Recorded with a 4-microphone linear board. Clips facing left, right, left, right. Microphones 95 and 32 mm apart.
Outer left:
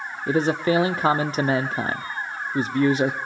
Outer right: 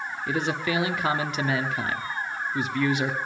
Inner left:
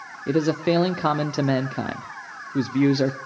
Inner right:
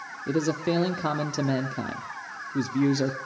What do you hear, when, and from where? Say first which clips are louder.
0.3 s a man speaking: outer left 7 dB, inner left 5 dB; 35° left (ahead or behind), 0.8 m